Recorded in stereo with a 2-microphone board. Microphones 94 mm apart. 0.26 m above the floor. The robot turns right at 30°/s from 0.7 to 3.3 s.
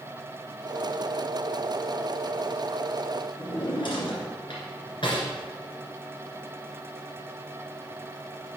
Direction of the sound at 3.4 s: 65° left (ahead or behind).